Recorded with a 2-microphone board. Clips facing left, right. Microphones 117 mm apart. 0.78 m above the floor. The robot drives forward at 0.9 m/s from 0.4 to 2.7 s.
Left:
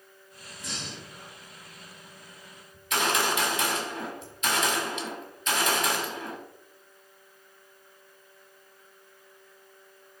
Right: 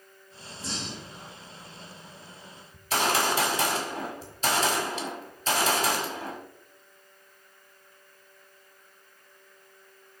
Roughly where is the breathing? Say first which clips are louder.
Right 3 dB; right.